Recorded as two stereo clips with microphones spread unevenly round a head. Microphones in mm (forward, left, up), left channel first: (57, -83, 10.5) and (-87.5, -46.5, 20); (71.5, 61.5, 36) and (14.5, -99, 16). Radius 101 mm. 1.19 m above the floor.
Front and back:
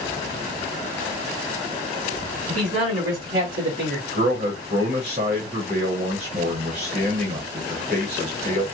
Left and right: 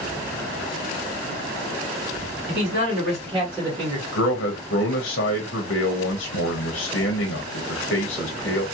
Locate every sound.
2.5 s a man speaking: 160° right, 2 m; by 4.0 s straight behind, 1.6 m
4.1 s a man speaking: 110° left, 0.7 m